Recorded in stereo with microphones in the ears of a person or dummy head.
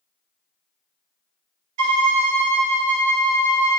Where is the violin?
70° right (ahead or behind), 0.5 m.